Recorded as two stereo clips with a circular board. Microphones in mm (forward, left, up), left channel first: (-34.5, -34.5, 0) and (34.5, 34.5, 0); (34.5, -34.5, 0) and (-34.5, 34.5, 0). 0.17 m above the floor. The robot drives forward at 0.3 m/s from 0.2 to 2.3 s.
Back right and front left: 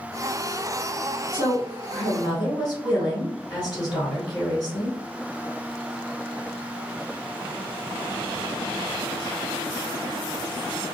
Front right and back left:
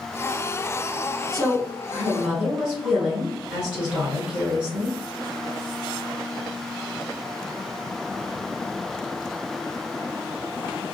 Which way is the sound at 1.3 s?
140° right.